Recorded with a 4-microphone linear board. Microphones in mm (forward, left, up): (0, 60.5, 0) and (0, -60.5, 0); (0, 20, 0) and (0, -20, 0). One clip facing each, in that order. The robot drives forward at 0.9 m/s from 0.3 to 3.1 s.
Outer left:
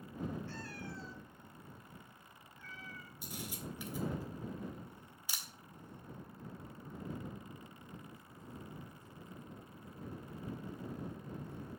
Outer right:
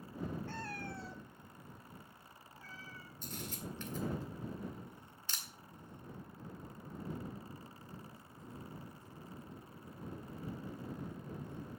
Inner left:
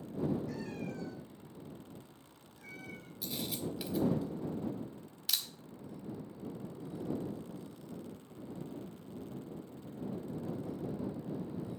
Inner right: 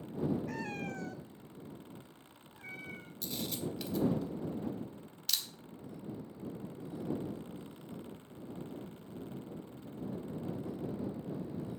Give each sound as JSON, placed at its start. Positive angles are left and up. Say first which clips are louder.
{"t": 0.5, "sound": "a cat meowing", "louder": "outer right 2 dB, inner right 1 dB", "side_deg": -55, "distance_m": 1.2}
{"t": 3.2, "sound": "a camera shutter", "louder": "even, even", "side_deg": 10, "distance_m": 1.7}